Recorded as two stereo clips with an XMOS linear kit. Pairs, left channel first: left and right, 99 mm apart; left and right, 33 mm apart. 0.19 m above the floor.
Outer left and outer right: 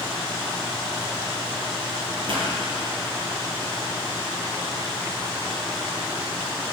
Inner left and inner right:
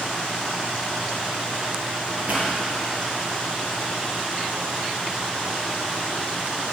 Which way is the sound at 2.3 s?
60° right (ahead or behind).